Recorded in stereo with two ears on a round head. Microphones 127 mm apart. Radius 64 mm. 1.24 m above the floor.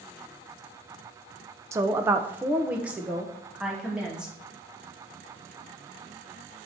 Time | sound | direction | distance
1.7 | a woman speaking | 20° right (ahead or behind) | 0.5 m